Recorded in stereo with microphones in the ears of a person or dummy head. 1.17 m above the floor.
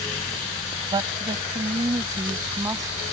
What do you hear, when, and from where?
0.9 s a woman speaking: 25° right (ahead or behind); by 2.9 s 15° right (ahead or behind)